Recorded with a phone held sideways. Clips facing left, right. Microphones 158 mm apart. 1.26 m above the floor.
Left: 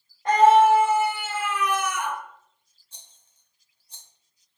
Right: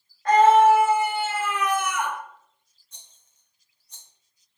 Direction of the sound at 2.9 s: 30° left (ahead or behind).